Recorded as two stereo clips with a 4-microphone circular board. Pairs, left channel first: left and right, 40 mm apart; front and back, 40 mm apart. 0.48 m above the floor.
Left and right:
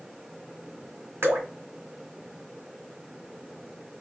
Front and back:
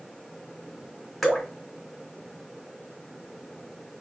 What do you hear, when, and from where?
1.2 s dripping: 80° right, 1.1 m